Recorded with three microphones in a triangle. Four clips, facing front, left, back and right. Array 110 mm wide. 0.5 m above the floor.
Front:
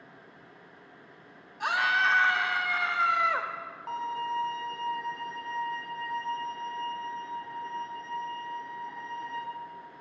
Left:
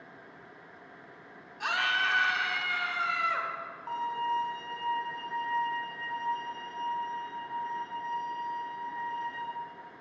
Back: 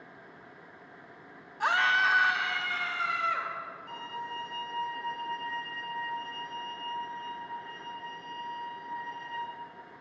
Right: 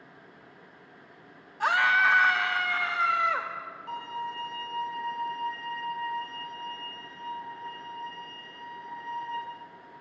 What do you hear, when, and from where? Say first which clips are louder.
1.6 s a scream: right 7 dB, even; 120° right, 0.8 m; by 3.5 s 25° right, 1.3 m
3.9 s a violin: left 5 dB, front 9 dB; 30° left, 4 m